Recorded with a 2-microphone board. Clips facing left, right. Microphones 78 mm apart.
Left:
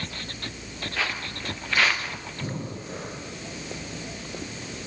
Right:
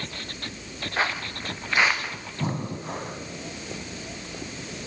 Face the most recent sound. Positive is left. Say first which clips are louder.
# right 5 dB
turn(degrees=-60)  # may be behind; listen again after turning